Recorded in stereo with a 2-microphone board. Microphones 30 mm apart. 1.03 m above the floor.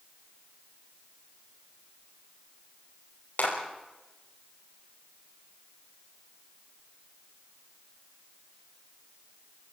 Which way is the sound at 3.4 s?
85° left.